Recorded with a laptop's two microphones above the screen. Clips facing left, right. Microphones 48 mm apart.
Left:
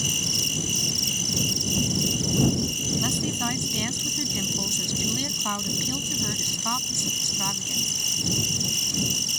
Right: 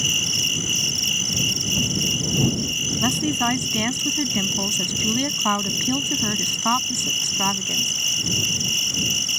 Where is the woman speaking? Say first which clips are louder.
Right 8 dB; 25° right (ahead or behind).